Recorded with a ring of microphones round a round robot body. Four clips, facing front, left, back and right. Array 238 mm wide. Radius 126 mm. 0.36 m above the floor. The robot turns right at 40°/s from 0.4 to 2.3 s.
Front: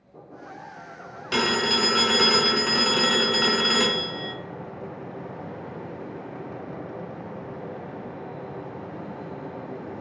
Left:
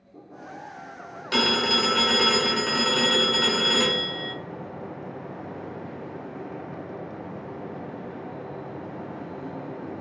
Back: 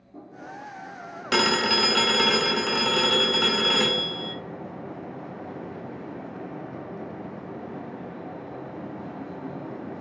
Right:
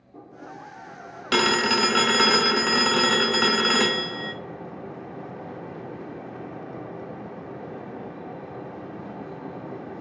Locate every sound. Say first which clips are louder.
1.3 s a phone ringing: right 3 dB, back 1 dB; 130° right, 0.6 m; by 4.3 s 90° right, 0.6 m